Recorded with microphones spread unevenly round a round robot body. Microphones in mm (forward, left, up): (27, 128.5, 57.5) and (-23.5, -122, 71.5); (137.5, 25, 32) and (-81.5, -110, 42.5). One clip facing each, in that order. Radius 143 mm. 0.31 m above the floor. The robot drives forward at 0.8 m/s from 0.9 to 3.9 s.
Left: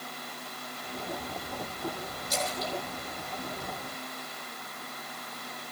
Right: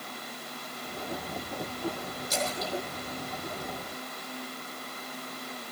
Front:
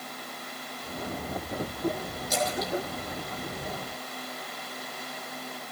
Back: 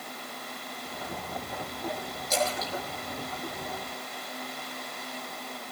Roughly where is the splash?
Right.